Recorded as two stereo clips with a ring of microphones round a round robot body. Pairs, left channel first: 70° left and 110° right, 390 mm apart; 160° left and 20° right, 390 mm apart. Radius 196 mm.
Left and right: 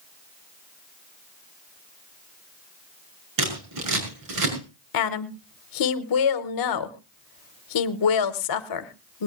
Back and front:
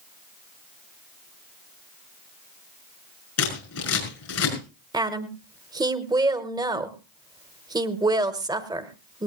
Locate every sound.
3.4 s scissors: 150° right, 6 m
4.9 s a woman speaking: 55° left, 1.2 m